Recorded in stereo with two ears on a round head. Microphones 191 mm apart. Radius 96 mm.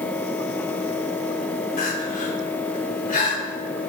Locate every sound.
1.8 s crying: 40° left (ahead or behind), 3 m